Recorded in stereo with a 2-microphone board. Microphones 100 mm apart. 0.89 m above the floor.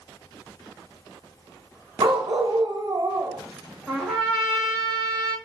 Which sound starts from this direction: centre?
A trumpet, at 3.9 s.